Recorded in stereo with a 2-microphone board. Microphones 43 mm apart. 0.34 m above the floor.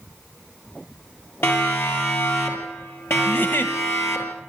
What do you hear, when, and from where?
1.4 s a siren: 65° left (ahead or behind), 8 m; by 4.3 s 75° left (ahead or behind), 6.5 m
3.3 s a giggle: 60° left (ahead or behind), 1.1 m